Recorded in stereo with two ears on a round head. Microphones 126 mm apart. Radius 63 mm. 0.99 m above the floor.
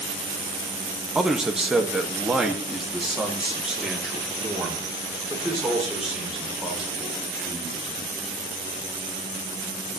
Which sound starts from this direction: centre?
A man speaking, at 1.1 s.